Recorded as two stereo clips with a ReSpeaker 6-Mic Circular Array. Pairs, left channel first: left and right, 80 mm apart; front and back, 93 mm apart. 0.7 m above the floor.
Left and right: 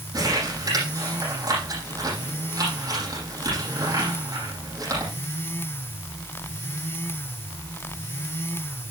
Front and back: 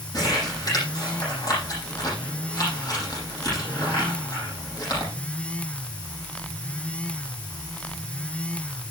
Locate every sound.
0.1 s crumpling: 50° right, 9.5 m